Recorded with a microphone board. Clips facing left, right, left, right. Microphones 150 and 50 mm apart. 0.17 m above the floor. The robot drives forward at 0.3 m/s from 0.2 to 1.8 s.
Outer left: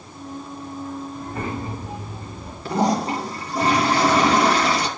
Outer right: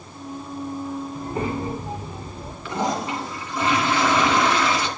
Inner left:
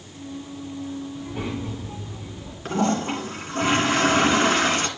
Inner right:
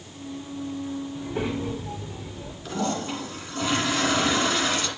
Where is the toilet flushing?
40° left (ahead or behind), 1.8 m.